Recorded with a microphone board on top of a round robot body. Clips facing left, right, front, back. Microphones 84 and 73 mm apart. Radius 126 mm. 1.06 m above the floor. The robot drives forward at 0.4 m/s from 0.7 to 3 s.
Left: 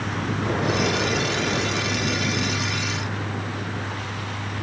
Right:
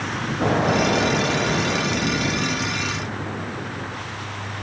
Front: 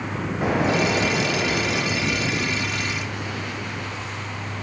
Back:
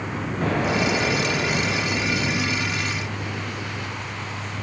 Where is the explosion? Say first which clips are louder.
Right 5 dB, front 2 dB; 80° right, 5 m; by 3.3 s 90° right, 5 m.